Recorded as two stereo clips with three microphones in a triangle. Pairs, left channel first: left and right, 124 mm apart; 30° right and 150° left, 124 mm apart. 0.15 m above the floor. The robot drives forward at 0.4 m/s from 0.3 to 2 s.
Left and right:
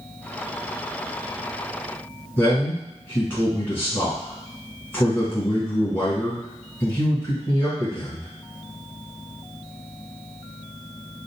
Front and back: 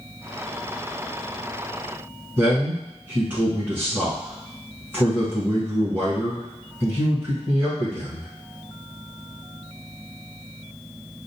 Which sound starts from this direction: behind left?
A man speaking, at 2.4 s.